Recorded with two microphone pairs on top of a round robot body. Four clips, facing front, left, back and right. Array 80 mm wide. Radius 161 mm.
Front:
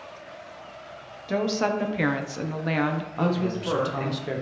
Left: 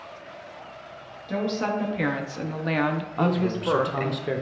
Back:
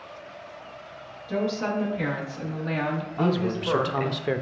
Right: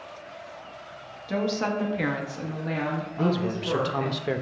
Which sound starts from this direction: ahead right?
A woman speaking, at 1.3 s.